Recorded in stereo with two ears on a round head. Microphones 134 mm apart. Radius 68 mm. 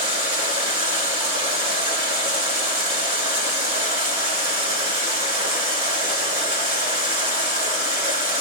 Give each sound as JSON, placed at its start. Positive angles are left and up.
{"t": 0.0, "sound": "running water", "side_deg": -35, "distance_m": 2.5}